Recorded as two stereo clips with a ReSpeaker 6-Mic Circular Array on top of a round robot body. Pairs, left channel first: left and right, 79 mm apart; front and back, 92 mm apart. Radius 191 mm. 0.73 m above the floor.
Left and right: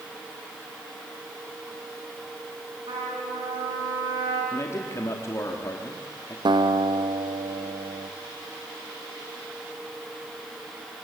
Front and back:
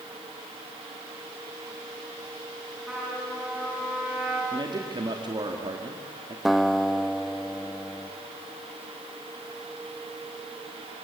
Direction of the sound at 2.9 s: 95° right.